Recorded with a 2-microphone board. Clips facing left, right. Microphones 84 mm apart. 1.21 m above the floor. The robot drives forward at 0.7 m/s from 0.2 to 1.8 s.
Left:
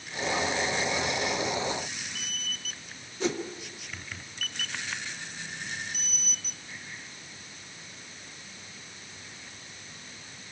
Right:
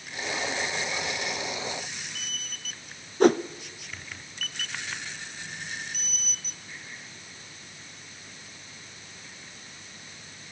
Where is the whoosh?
55° right (ahead or behind), 0.6 m.